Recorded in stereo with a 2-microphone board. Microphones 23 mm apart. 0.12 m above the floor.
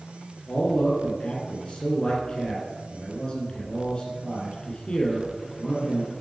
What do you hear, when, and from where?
0.5 s a man speaking: 40° left (ahead or behind), 2.5 m